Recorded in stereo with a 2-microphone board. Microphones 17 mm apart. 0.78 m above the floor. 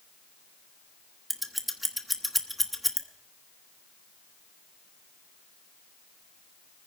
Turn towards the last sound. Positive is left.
turn(degrees=-5)  # may be behind; listen again after turning